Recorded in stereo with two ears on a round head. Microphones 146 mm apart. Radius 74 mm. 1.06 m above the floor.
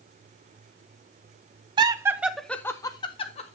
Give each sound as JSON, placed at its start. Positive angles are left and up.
{"t": 1.8, "sound": "laughter", "side_deg": -30, "distance_m": 0.7}